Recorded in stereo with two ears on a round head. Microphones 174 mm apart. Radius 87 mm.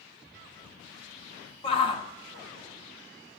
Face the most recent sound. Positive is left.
turn(degrees=30)  # may be behind; listen again after turning